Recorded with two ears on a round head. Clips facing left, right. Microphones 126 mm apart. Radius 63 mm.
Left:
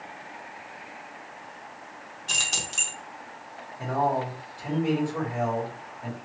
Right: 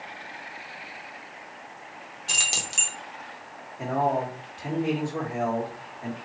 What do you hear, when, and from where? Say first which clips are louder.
2.3 s keys jangling: even; 10° right (ahead or behind), 0.7 m
3.8 s a man speaking: right 1 dB; 25° right (ahead or behind), 1.4 m